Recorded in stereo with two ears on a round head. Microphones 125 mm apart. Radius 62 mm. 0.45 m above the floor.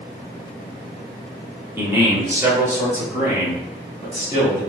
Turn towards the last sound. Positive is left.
turn(degrees=-25)  # may be behind; listen again after turning